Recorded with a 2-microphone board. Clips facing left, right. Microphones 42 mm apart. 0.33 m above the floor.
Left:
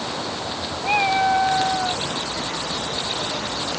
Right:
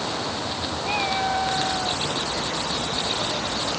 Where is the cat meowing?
35° left (ahead or behind); by 2.0 s 30° left (ahead or behind).